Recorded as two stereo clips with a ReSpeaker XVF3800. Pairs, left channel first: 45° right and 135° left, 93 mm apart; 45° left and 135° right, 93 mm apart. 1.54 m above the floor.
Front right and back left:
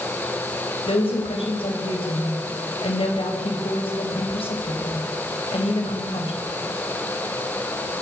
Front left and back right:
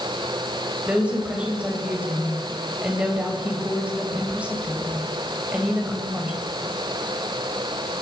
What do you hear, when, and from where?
0.9 s a woman speaking: 60° right, 7 m